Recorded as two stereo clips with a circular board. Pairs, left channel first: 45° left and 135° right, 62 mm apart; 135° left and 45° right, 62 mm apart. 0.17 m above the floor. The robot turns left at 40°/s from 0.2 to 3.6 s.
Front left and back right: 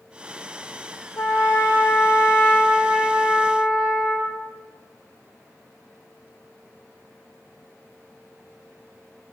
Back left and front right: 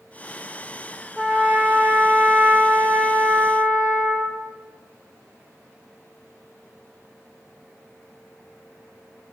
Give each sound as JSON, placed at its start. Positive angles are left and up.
{"t": 1.2, "sound": "a trumpet", "azimuth_deg": 30, "distance_m": 1.5}